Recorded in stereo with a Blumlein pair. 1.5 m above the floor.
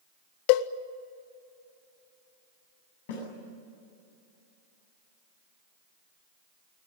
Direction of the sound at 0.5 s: 45° left.